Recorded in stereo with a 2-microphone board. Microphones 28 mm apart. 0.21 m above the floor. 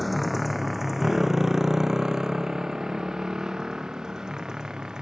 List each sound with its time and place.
0.0 s a motorcycle: centre (ahead or behind); by 5.0 s 25° right (ahead or behind)